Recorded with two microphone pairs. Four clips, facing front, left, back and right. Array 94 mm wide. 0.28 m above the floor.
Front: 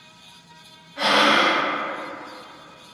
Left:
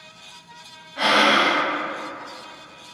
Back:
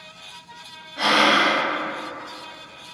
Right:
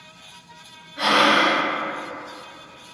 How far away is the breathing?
About 0.8 m.